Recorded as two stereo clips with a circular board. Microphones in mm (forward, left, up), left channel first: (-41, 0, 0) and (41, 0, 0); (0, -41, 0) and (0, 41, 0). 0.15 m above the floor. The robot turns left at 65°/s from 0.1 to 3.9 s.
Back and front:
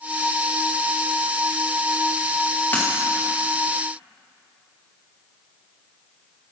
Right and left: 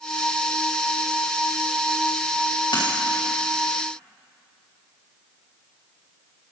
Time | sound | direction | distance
2.7 | a dropped coin | 115° right | 3.5 m